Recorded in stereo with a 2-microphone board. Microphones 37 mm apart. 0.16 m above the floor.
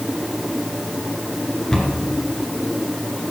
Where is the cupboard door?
10° left (ahead or behind), 2.5 m.